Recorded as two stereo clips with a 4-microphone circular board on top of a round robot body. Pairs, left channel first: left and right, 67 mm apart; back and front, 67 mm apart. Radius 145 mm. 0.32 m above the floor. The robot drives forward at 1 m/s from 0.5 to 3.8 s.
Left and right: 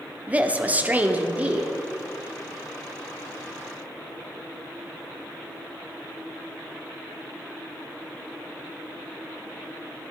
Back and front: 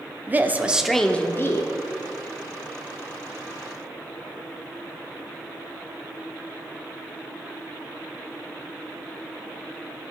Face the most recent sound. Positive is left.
turn(degrees=-175)